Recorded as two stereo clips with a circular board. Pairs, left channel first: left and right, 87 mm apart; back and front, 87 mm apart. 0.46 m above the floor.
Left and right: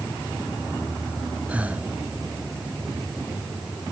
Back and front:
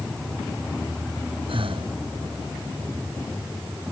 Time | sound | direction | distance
1.5 | breathing | 15° right | ?